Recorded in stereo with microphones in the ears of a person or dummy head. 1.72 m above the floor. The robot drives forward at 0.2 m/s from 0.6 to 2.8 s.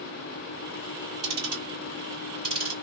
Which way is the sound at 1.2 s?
75° right (ahead or behind).